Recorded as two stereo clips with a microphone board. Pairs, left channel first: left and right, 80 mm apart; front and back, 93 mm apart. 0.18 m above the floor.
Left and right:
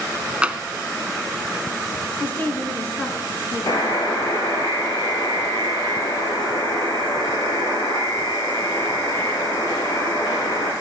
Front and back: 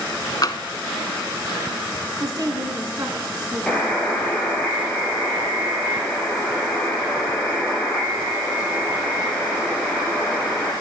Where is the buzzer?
80° left, 3 m.